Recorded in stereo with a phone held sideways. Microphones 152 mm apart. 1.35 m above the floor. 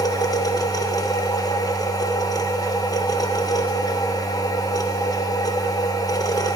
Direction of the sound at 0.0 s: 25° left (ahead or behind).